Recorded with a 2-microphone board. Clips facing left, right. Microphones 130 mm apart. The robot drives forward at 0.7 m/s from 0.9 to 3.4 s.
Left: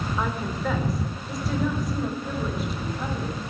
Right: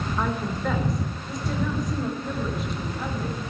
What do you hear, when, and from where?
0.2 s a woman speaking: centre (ahead or behind), 1.5 m